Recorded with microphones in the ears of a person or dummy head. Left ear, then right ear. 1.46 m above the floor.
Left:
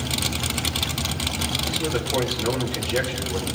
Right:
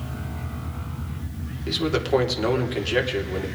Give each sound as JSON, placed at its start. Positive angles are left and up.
{"t": 1.7, "sound": "a man speaking", "side_deg": -50, "distance_m": 3.5}